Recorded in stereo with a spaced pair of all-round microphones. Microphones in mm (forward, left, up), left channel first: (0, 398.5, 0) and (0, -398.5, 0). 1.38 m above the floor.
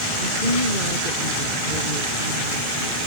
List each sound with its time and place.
0.2 s a woman speaking: 75° right (ahead or behind)